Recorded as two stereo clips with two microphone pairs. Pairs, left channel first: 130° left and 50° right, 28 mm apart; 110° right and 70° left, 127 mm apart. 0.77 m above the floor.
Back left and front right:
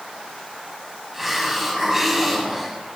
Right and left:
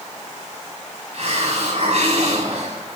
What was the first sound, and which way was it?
A hiss, 30° left.